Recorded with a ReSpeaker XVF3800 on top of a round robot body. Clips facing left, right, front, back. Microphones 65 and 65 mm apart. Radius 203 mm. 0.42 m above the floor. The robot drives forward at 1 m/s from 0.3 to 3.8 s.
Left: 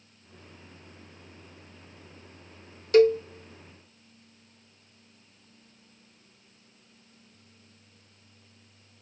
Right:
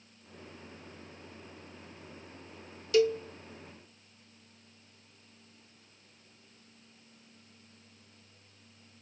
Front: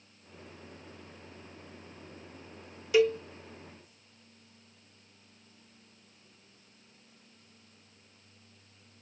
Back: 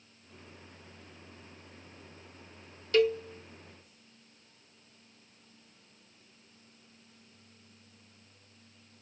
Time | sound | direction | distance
2.9 | a cowbell | 75° left | 0.6 m